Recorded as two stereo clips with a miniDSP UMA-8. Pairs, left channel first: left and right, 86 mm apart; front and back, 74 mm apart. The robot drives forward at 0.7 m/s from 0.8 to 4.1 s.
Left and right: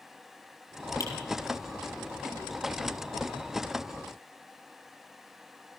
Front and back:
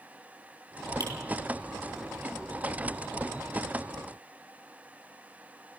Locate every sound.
1.0 s a finger snap: 140° left, 4.5 m